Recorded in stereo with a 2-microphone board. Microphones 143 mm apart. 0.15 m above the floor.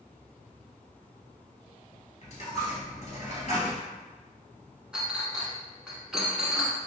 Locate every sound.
2.2 s a dropped coin: 50° left (ahead or behind), 1.5 m
4.9 s a clink: 5° right (ahead or behind), 0.7 m